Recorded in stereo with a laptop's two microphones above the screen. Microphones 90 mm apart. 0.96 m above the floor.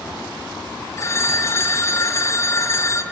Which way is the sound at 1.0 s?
30° left (ahead or behind).